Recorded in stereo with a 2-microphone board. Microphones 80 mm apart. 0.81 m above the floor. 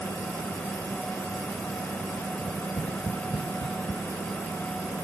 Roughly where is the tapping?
Left.